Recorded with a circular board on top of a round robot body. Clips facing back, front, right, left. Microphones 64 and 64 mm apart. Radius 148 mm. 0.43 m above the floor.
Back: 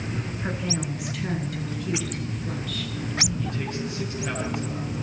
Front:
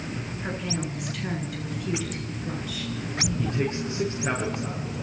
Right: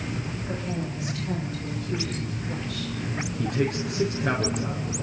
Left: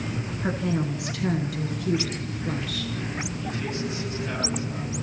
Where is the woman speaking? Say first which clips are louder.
Back 1 dB, left 8 dB; 95° left, 6 m; by 2.9 s 80° left, 7 m.